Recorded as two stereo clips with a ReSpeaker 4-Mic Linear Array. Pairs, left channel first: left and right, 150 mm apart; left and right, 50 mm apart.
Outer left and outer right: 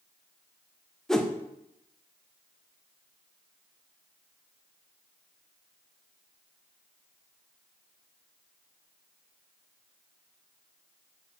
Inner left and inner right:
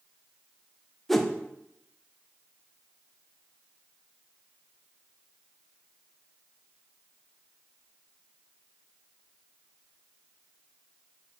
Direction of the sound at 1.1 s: 5° left (ahead or behind).